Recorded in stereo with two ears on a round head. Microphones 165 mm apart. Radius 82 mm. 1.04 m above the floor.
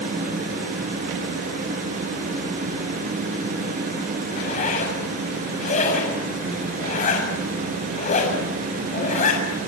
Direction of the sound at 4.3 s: 40° left (ahead or behind).